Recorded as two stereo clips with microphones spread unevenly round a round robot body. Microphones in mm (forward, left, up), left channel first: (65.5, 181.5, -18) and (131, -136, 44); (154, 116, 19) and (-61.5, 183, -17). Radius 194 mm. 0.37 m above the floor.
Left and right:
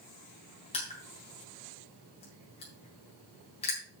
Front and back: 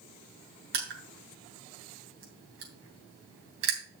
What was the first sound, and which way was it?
Crushing, 170° left.